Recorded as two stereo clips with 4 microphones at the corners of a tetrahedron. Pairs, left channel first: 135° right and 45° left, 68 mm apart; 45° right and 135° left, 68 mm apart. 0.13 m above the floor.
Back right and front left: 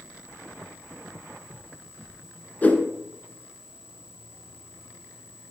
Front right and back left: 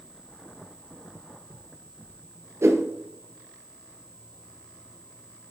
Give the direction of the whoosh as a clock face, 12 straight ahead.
6 o'clock.